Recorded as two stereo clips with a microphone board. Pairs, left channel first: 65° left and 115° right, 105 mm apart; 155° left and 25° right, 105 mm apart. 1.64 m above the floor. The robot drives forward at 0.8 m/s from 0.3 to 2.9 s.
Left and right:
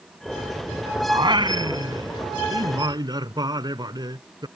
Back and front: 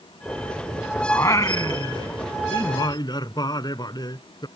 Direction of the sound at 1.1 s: 145° right.